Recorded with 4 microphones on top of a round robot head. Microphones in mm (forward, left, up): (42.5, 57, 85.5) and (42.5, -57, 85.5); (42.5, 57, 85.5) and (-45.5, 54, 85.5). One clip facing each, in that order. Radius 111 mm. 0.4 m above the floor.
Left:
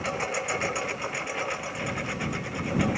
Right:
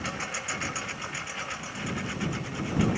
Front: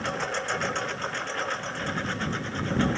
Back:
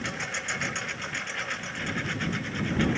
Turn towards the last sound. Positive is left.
turn(degrees=55)